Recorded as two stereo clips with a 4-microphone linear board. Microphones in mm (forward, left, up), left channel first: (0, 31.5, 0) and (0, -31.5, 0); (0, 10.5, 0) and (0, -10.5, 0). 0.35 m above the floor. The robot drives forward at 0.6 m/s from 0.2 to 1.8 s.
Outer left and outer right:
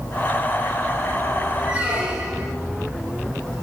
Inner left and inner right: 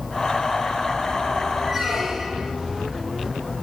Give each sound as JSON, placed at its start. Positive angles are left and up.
{"t": 1.6, "sound": "a squeak", "side_deg": -25, "distance_m": 3.0}